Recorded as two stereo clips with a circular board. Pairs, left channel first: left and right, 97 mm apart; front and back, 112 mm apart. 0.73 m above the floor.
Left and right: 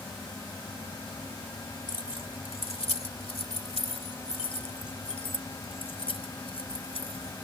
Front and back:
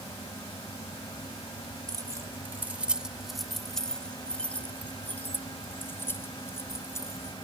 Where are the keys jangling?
125° left; by 7.3 s 65° left.